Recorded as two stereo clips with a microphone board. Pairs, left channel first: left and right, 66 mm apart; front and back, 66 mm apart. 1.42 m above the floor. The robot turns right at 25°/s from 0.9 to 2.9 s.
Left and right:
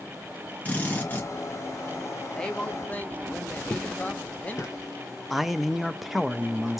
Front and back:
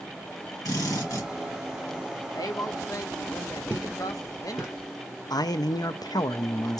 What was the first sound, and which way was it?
A drill, 20° left.